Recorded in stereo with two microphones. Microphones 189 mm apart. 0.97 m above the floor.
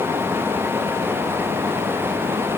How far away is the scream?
I don't hear a scream.